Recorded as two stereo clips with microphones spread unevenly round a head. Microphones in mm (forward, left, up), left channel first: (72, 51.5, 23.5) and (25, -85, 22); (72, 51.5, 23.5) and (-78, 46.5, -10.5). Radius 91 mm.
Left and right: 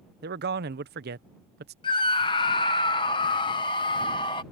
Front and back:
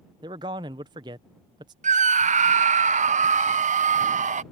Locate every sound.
0.2 s a man speaking: 110° right
1.8 s a scream: 140° left